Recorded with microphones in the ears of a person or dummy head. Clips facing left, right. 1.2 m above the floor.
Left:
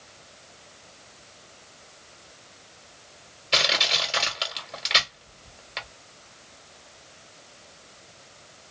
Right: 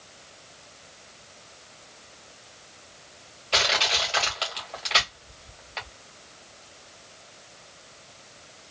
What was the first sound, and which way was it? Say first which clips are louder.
Crushing: right 1 dB; 20° left (ahead or behind).